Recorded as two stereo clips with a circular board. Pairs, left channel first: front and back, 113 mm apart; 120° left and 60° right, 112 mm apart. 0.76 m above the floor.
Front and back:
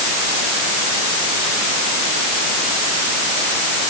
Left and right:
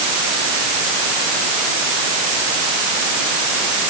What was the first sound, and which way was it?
Only background noise.